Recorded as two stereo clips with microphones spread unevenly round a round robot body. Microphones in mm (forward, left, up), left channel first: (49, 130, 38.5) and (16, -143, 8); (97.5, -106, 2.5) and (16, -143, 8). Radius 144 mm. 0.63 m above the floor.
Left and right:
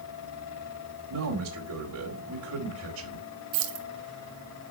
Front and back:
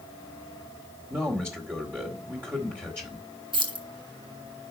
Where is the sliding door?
No sliding door in this recording.